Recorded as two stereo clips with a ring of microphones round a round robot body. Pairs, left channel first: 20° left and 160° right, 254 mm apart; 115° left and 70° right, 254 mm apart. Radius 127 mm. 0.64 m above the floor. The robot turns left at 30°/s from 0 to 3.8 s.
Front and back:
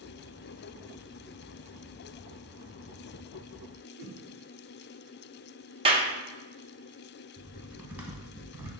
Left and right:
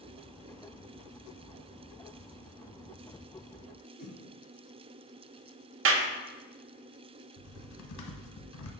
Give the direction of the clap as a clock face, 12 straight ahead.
3 o'clock.